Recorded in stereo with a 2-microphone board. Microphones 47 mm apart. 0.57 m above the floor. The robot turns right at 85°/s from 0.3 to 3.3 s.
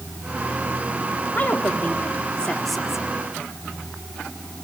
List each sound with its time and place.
1.4 s a woman speaking: 60° left, 1.5 m; by 3.1 s 155° right, 1.5 m